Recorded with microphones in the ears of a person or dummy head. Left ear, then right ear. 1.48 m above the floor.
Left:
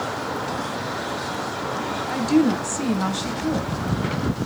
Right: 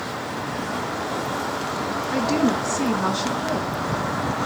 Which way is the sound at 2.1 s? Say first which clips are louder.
Left 2 dB; 60° left (ahead or behind).